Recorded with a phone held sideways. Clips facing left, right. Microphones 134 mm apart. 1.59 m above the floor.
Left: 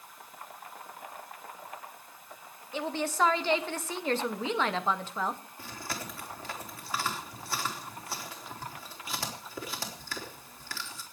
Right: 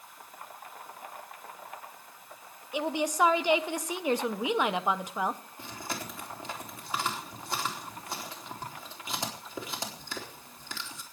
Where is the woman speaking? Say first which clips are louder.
Right 2 dB; 15° right (ahead or behind), 1.2 m.